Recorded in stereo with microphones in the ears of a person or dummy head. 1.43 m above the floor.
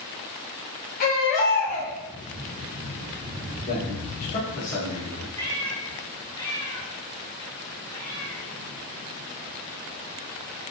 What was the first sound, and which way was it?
A baby crying, 45° left (ahead or behind).